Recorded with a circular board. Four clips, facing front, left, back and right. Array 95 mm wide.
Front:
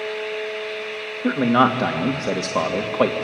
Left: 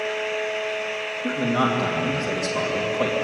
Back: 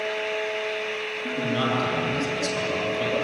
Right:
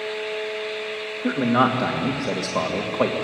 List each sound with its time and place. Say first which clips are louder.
1.2 s a man speaking: right 3 dB, front 9 dB; 20° right, 2.5 m